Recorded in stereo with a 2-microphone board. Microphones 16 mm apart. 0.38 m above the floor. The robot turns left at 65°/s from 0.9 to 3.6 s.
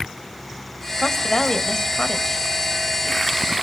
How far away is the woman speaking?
About 2 m.